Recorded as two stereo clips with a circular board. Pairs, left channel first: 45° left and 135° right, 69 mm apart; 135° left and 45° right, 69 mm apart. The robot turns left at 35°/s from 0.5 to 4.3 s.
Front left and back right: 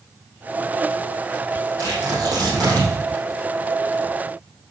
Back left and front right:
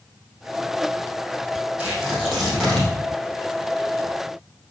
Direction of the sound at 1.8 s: 115° right.